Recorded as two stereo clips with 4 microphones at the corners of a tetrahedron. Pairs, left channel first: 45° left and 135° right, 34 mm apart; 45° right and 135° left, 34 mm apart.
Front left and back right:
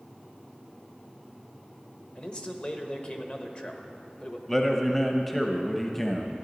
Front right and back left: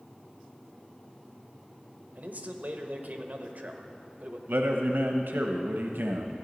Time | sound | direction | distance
2.1 | a man speaking | 100° left | 1.0 m
4.5 | a man speaking | 125° left | 0.7 m